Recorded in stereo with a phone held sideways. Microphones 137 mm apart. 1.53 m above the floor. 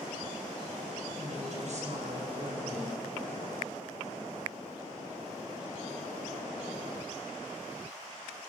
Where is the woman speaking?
60° right (ahead or behind), 5.5 m.